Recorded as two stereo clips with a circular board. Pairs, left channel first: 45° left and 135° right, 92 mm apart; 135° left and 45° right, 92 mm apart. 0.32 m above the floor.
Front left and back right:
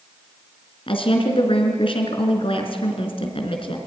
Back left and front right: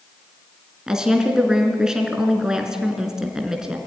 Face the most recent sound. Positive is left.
turn(degrees=40)